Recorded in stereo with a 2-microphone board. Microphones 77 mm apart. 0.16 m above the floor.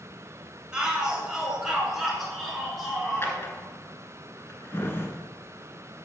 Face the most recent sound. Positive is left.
turn(degrees=35)  # may be behind; listen again after turning